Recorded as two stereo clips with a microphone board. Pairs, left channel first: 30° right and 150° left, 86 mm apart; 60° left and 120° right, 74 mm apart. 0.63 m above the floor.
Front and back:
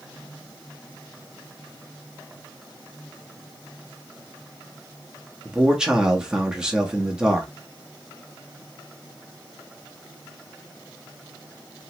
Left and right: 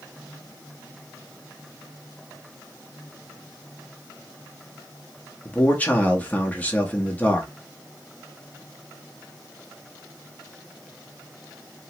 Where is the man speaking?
80° left, 0.9 m.